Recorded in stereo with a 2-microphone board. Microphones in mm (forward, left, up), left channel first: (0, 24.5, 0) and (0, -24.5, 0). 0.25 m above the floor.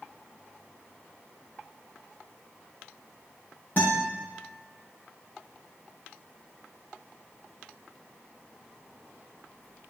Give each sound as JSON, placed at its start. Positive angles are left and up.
{"t": 3.8, "sound": "a guitar", "side_deg": 40, "distance_m": 5.0}